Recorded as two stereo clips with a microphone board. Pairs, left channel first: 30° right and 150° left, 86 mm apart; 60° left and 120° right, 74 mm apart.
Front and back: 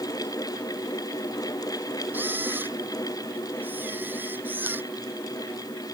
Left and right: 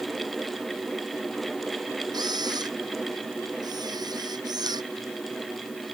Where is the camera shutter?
140° right.